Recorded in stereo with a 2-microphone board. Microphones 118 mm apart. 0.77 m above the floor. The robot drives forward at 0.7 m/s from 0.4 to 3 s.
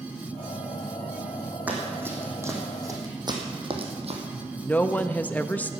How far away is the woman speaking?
About 0.5 m.